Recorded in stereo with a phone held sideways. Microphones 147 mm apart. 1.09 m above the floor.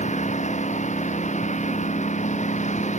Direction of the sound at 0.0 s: 55° left (ahead or behind).